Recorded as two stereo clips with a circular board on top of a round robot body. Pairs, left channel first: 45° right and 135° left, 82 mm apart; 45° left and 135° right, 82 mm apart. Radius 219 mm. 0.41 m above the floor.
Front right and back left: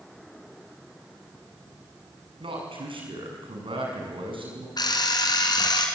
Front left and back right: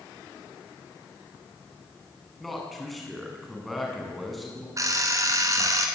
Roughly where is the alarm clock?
Right.